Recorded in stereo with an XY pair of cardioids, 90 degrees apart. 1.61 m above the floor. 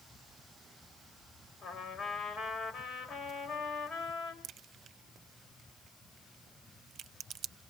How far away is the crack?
About 0.9 m.